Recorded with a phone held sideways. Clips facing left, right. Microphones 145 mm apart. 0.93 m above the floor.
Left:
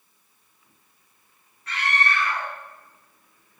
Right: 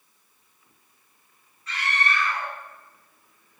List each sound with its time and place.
1.7 s a scream: 55° left (ahead or behind), 2.5 m